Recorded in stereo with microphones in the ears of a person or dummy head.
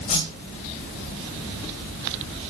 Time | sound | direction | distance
0.1 | a whoosh | 40° left (ahead or behind) | 2.5 m